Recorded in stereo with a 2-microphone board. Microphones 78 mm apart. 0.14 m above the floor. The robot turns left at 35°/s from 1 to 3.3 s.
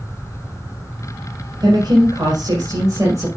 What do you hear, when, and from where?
1.6 s a woman speaking: 85° right, 2.5 m; by 3.3 s 145° right, 2.5 m